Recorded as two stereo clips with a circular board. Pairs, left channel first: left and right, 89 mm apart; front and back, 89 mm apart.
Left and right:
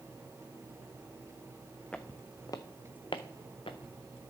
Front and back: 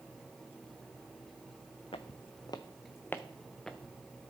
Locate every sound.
1.9 s footsteps: 10° left, 0.8 m; by 3.9 s 90° left, 1.2 m